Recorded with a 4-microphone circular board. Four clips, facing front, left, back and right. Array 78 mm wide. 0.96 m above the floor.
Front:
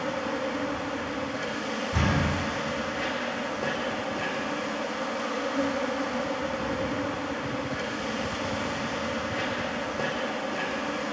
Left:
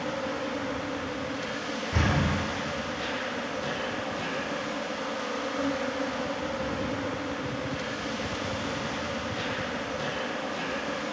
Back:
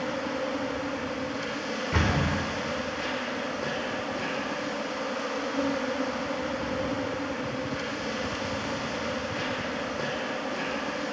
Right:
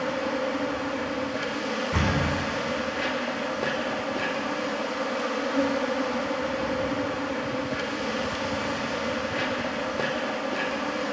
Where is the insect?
80° right, 1.5 m.